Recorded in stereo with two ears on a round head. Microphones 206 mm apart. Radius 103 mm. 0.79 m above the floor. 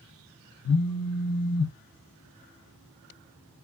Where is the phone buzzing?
80° left, 0.6 m.